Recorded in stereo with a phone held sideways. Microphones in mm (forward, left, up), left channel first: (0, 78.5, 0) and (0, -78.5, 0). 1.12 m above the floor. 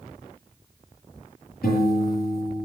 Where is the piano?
80° left, 8.5 m.